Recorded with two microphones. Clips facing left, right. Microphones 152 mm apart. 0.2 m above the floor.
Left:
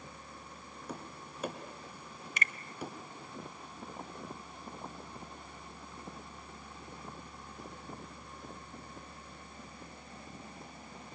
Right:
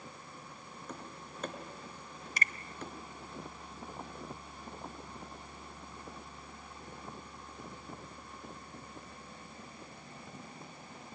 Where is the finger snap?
35° right (ahead or behind), 1.2 m.